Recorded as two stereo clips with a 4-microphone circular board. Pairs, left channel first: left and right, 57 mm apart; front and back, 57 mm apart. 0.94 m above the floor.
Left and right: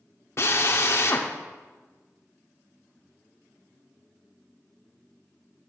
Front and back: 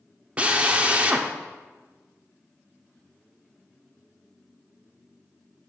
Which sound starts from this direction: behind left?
A drill, at 0.4 s.